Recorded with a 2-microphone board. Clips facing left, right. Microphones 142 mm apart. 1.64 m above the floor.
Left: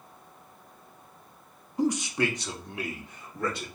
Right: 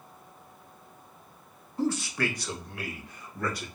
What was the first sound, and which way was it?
A man speaking, 15° left (ahead or behind).